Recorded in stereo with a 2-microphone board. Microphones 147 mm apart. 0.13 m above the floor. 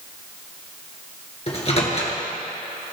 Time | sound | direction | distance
1.5 | a microwave | 45° left (ahead or behind) | 2 m